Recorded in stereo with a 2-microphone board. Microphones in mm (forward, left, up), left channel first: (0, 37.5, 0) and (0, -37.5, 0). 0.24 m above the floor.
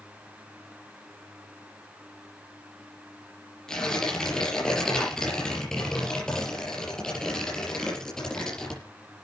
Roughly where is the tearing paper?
Centre.